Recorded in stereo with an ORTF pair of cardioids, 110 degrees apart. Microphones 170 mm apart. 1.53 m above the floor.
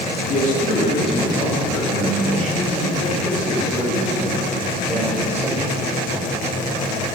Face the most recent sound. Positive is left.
turn(degrees=-15)